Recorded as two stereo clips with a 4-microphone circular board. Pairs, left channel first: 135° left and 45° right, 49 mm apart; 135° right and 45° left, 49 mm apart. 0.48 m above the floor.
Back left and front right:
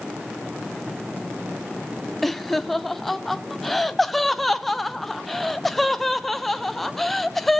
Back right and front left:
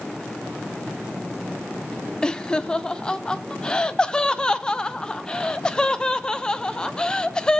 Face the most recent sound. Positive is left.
turn(degrees=-145)